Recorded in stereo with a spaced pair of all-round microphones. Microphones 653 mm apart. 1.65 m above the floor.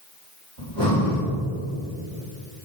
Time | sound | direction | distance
0.6 | breathing | 55° right (ahead or behind) | 3.5 m